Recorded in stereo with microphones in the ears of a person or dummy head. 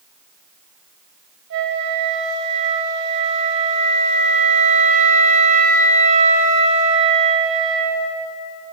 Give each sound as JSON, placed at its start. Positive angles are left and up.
{"t": 1.5, "sound": "a flute", "side_deg": -60, "distance_m": 2.0}